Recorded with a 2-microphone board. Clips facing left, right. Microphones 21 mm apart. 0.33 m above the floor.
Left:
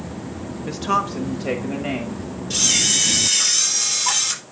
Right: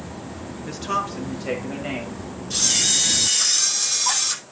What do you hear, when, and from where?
0.7 s a woman speaking: 10° left (ahead or behind), 0.9 m
2.5 s a camera shutter: 25° left (ahead or behind), 4.5 m